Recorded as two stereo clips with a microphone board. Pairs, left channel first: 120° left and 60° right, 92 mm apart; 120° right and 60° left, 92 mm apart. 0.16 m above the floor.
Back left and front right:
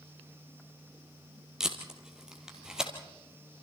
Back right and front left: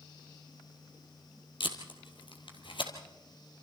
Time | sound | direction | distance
1.6 | tape being pulled | 145° right | 2.5 m